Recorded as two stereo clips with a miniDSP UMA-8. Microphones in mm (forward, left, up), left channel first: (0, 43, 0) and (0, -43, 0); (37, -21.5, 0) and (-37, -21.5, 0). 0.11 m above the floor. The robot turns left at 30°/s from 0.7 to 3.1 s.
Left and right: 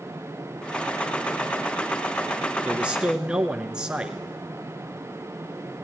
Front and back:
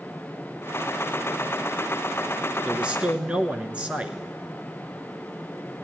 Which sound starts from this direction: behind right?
A man speaking, at 2.6 s.